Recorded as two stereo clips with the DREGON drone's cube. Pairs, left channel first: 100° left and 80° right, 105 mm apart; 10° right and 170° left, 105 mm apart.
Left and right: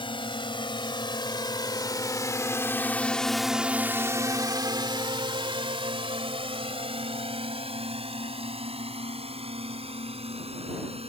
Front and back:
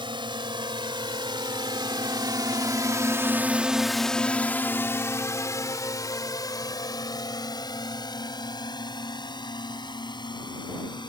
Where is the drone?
130° left; by 11.1 s 55° right.